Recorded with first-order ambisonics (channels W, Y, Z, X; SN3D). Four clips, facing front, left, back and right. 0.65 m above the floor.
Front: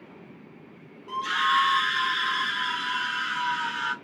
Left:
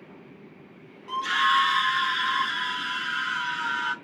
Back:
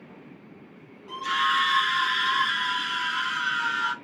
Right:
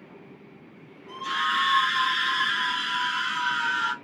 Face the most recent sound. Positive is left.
turn(degrees=-105)